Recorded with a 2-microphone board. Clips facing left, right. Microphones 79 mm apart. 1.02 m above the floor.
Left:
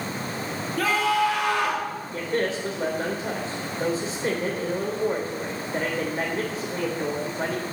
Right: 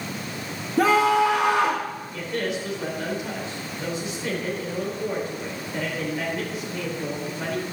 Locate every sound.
0.8 s a scream: 25° right (ahead or behind), 2.5 m
2.1 s a man speaking: 35° left (ahead or behind), 4 m